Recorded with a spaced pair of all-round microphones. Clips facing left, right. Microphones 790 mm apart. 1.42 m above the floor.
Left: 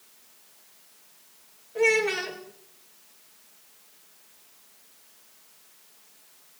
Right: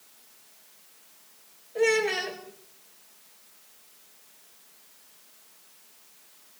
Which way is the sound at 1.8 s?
40° left (ahead or behind).